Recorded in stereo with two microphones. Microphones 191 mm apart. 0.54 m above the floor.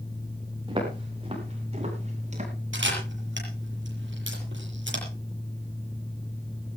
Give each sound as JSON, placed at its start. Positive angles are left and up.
{"t": 0.7, "sound": "footsteps", "side_deg": -25, "distance_m": 8.5}
{"t": 2.7, "sound": "a camera shutter", "side_deg": -80, "distance_m": 7.0}